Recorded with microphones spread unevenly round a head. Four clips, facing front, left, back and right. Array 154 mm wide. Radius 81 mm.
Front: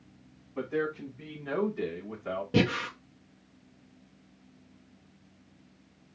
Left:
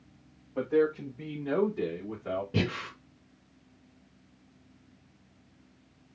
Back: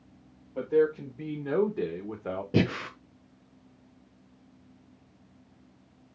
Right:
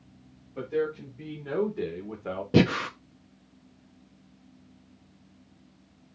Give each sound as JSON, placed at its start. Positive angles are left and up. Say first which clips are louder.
{"t": 0.6, "sound": "a man speaking", "louder": "left 3 dB, back 7 dB", "azimuth_deg": 165, "distance_m": 4.0}
{"t": 2.5, "sound": "breathing", "louder": "right 9 dB, even", "azimuth_deg": -90, "distance_m": 1.0}